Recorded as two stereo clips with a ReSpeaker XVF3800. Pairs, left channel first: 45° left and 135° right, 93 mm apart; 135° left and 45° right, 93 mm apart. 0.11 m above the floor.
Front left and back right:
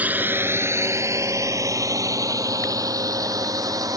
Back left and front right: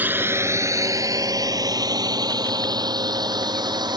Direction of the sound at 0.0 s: 85° right.